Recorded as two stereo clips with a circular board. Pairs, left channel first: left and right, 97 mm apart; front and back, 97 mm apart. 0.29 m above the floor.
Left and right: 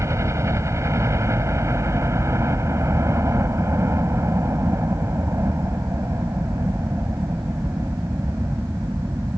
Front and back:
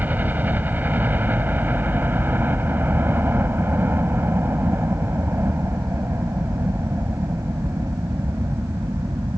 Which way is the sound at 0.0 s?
120° right.